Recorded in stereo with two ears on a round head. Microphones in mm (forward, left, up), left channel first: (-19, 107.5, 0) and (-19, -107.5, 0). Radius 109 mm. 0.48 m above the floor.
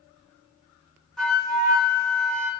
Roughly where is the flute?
Centre.